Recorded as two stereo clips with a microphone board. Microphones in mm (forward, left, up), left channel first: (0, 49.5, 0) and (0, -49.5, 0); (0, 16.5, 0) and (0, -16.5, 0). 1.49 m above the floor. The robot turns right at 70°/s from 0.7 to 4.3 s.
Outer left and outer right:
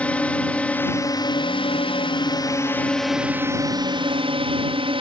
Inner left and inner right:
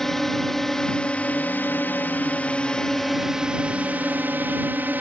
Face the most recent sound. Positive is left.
turn(degrees=-95)